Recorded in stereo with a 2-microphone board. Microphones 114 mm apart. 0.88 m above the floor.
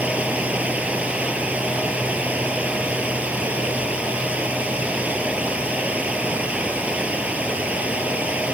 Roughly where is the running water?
Centre.